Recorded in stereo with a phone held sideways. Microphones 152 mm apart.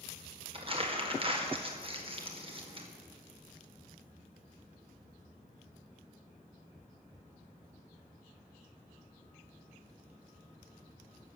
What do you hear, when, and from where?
0.5 s crumpling: 40° right (ahead or behind), 1.9 m